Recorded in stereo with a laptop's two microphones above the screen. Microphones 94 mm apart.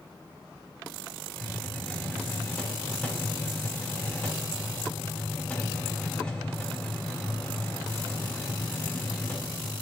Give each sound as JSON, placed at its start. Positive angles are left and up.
{"t": 1.4, "sound": "a hiss", "side_deg": 10, "distance_m": 4.0}